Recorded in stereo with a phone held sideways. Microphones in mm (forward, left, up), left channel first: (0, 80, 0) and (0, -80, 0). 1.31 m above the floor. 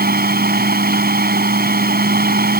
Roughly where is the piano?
No piano in this recording.